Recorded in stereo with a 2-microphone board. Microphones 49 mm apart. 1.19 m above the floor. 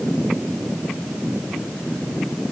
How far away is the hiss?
No hiss in this recording.